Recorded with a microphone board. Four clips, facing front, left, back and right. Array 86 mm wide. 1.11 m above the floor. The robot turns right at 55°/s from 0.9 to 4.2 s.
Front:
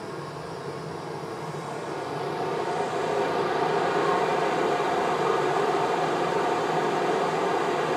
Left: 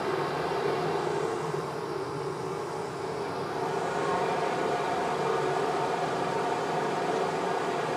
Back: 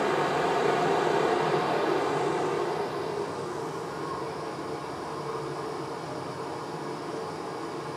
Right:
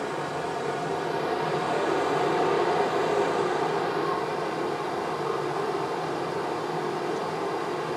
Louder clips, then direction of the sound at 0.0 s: Left 1 dB, back 10 dB; 175° left.